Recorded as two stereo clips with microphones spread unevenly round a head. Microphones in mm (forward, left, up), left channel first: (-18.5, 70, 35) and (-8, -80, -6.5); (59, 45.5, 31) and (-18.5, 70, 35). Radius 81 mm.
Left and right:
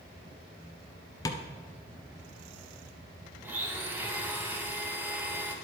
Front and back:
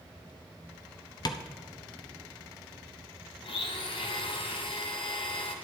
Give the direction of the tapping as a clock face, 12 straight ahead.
11 o'clock.